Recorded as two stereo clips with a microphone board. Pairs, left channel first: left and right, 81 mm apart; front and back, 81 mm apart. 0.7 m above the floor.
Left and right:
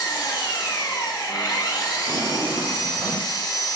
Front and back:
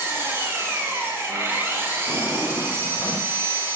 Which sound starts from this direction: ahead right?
A drawer, at 2.1 s.